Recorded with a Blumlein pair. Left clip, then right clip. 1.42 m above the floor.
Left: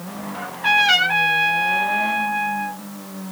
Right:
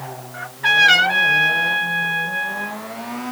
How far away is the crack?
I don't hear a crack.